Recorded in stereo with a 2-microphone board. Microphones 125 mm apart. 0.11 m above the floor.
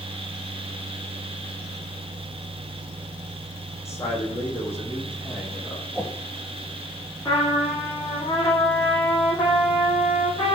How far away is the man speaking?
About 6.5 m.